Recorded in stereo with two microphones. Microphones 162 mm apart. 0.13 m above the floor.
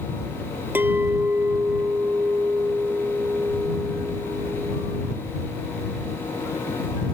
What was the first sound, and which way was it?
A clink, 15° right (ahead or behind).